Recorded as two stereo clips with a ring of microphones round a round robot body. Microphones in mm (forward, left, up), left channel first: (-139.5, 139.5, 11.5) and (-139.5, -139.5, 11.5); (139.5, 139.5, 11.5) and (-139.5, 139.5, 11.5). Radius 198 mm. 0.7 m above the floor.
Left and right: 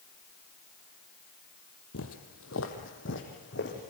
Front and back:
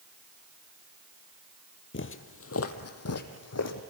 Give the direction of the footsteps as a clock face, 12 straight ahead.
11 o'clock.